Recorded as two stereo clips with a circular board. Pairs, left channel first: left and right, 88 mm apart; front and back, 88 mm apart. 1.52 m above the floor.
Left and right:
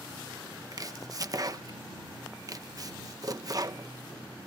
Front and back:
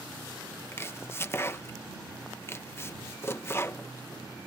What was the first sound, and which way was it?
Chopping, 55° right.